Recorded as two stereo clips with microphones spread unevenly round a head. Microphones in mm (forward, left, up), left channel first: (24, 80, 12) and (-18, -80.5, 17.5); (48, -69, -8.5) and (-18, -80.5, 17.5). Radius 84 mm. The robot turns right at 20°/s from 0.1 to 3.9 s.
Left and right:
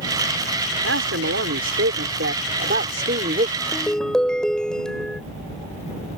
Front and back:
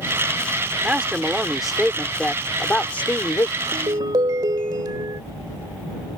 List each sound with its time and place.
0.8 s a man speaking: 105° right; by 3.5 s 50° right
3.6 s a ringtone: 155° left; by 5.2 s 160° left